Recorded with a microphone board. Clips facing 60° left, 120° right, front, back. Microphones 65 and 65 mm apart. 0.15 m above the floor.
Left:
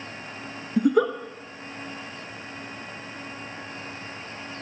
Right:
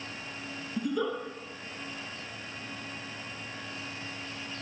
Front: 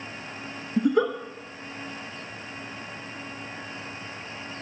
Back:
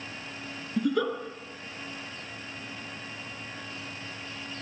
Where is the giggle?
65° left, 0.6 m.